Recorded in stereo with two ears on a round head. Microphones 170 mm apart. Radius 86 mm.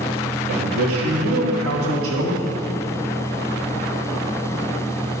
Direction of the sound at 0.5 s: 85° right.